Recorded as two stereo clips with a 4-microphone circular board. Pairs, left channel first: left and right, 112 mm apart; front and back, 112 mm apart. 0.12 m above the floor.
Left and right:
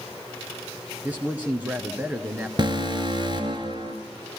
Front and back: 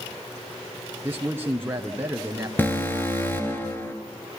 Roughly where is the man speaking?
Behind right.